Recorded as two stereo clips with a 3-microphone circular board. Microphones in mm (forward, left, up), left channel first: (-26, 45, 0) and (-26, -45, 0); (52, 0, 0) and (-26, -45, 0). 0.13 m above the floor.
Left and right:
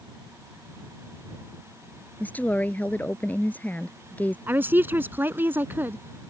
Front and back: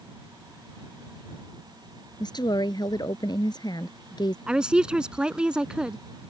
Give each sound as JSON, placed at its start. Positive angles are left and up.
{"t": 2.2, "sound": "a woman speaking", "azimuth_deg": 25}
{"t": 4.5, "sound": "a woman speaking", "azimuth_deg": -85}